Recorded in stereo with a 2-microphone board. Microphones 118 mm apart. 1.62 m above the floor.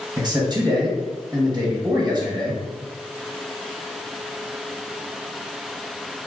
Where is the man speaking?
35° right (ahead or behind), 0.9 m.